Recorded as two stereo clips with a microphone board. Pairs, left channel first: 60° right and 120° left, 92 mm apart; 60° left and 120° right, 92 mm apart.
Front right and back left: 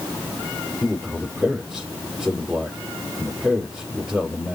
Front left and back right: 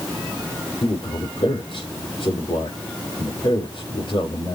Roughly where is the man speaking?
Ahead left.